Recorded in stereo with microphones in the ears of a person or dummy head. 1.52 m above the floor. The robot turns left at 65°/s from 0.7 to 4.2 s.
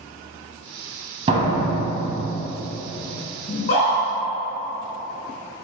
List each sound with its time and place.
1.3 s a door slam: 40° right, 0.9 m; by 2.3 s 105° right, 0.9 m
3.5 s a scream: 35° left (ahead or behind), 1.6 m; by 4.0 s 70° left (ahead or behind), 1.6 m